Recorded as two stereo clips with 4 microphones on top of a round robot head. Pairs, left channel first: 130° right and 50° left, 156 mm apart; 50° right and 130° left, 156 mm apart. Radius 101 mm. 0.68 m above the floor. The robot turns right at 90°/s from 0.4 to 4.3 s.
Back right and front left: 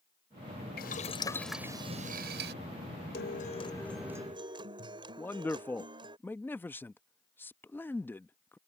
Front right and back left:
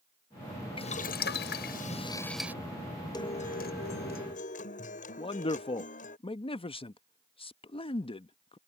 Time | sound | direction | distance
0.8 | boiling | 105° right | ?
3.1 | a guitar | 115° right | ?
5.2 | a man speaking | 65° right | ?